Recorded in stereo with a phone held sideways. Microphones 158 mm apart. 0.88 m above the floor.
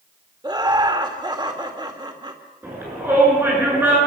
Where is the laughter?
25° right (ahead or behind), 2.5 m.